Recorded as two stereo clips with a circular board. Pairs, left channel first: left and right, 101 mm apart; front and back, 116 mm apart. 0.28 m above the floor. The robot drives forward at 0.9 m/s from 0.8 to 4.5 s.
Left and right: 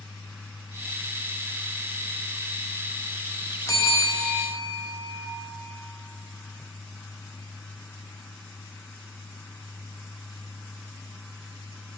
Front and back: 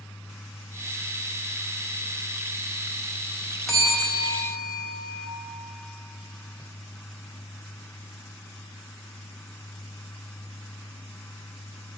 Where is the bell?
85° left, 1.6 m; by 5.3 s 130° left, 1.7 m.